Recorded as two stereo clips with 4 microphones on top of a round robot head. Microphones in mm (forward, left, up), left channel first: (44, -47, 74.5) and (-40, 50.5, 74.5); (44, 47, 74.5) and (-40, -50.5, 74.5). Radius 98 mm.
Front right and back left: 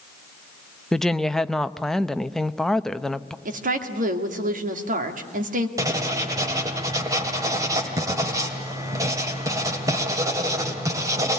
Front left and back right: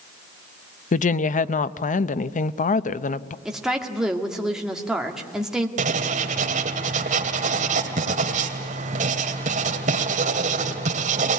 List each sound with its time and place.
0.9 s a woman speaking: 35° left, 0.7 m
3.5 s a woman speaking: 145° left, 2 m
5.8 s writing: 165° right, 2 m